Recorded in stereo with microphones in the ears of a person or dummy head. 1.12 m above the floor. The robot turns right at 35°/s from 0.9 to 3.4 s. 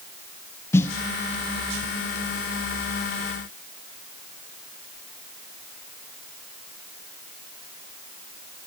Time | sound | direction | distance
0.7 | a snare drum | 15° left (ahead or behind) | 0.6 m